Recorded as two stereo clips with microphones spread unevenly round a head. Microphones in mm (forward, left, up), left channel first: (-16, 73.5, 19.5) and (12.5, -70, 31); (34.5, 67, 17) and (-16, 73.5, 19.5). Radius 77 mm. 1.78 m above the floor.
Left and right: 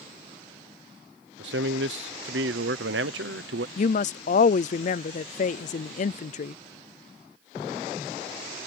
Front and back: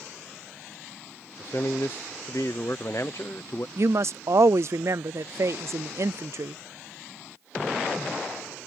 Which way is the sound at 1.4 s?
75° right.